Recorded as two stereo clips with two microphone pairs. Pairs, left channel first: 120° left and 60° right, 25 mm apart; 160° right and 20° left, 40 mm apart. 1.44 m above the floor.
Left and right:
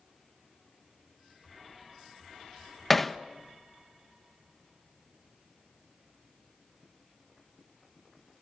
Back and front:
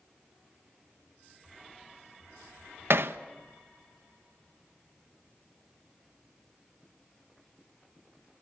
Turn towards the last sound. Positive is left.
turn(degrees=35)